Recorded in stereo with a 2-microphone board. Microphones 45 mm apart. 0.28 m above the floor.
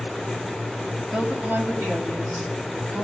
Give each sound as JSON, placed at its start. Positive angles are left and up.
{"t": 1.1, "sound": "a woman speaking", "side_deg": -30, "distance_m": 1.0}